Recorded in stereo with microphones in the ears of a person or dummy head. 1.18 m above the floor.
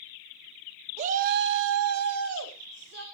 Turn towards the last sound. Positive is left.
turn(degrees=-50)  # may be behind; listen again after turning